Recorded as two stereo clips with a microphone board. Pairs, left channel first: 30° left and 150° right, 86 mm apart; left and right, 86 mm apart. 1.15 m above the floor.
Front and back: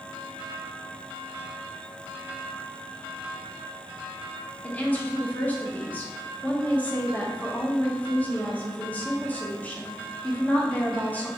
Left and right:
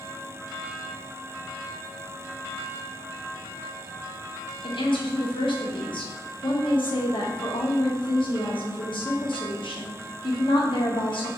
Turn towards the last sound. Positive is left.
turn(degrees=100)